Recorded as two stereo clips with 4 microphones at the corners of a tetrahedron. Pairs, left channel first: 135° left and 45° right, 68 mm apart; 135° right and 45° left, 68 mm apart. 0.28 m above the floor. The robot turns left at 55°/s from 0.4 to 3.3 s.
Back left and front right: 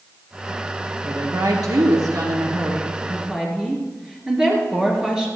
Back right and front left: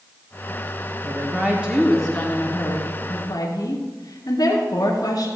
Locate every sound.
1.0 s a woman speaking: straight ahead, 4 m; by 5.3 s 120° right, 4 m